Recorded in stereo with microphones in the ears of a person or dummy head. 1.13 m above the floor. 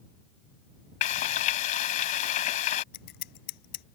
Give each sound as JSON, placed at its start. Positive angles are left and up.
{"t": 1.0, "sound": "frying", "side_deg": 40}
{"t": 2.9, "sound": "scissors", "side_deg": 65}